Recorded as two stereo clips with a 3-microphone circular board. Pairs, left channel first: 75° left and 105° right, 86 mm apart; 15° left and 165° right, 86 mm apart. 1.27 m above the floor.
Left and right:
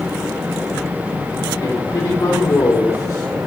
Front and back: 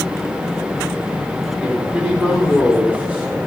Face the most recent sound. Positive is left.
turn(degrees=125)